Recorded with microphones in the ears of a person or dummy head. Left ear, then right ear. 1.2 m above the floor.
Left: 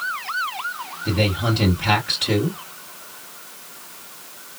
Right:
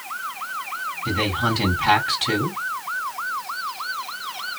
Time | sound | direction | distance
1.1 | a man speaking | 40° right (ahead or behind) | 2.5 m